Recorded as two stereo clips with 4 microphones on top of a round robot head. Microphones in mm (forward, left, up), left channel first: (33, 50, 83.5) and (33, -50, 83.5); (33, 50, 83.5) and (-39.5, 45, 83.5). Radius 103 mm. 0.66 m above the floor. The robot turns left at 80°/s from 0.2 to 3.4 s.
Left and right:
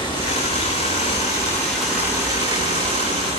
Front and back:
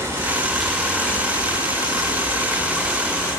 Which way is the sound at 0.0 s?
130° left.